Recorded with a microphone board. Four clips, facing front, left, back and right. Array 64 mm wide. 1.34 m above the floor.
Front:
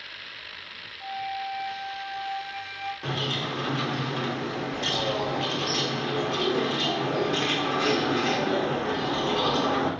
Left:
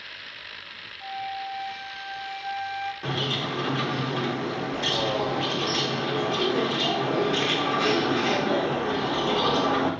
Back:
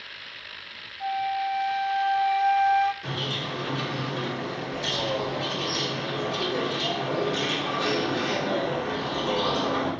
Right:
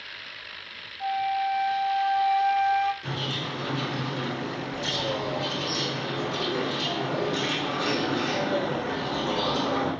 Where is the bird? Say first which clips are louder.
Left 3 dB, front 1 dB; 55° left, 4 m.